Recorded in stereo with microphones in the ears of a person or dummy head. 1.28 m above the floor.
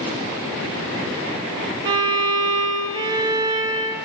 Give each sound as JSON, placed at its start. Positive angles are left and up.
{"t": 1.9, "sound": "a violin", "side_deg": -30, "distance_m": 0.7}